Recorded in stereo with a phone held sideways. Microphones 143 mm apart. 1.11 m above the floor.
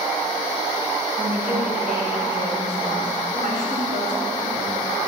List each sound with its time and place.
1.2 s a woman speaking: 80° right, 5 m; by 4.7 s 70° right (ahead or behind), 4 m